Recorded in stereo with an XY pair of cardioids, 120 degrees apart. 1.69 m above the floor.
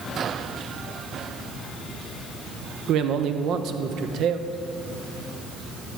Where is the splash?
I don't hear a splash.